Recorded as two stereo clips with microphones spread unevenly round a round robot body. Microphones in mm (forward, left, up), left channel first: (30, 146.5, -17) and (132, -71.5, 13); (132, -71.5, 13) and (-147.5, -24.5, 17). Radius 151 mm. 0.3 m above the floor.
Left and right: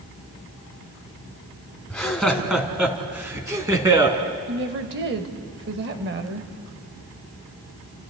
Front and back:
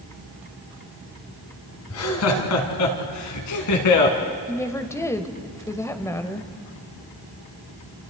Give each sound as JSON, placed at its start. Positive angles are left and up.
{"t": 1.9, "sound": "laughter", "azimuth_deg": 30, "distance_m": 3.0}
{"t": 4.5, "sound": "a woman speaking", "azimuth_deg": -85, "distance_m": 1.3}